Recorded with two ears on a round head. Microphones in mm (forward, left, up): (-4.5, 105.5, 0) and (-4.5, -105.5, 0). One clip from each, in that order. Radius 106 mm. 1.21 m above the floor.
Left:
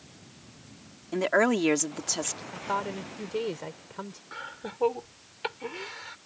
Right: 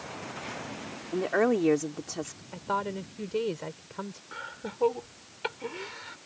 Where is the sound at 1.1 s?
85° left.